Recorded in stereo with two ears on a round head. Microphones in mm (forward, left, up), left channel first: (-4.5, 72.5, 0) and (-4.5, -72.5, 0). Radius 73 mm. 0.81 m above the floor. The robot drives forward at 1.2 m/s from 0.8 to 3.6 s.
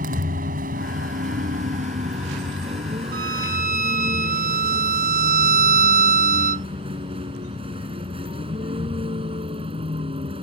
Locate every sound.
0.0 s a vehicle: 55° right (ahead or behind); by 10.4 s 35° right (ahead or behind)
3.1 s a violin: 65° right (ahead or behind); by 6.7 s 55° right (ahead or behind)